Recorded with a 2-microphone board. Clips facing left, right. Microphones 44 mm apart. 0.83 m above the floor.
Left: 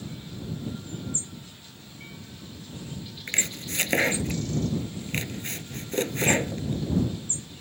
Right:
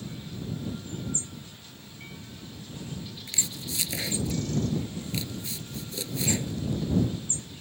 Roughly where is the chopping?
Left.